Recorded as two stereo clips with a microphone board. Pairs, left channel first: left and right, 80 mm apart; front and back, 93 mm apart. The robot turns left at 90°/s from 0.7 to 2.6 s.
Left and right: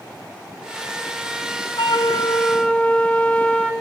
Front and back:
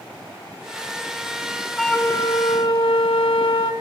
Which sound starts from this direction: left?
A flute, at 1.8 s.